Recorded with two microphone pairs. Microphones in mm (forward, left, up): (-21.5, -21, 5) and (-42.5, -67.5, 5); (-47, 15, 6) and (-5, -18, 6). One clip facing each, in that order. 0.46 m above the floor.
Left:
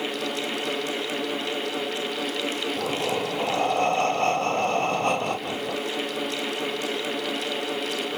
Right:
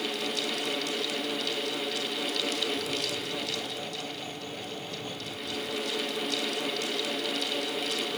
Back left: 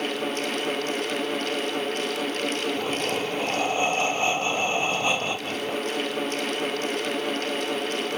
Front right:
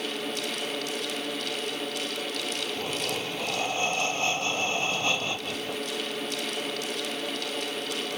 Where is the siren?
No siren in this recording.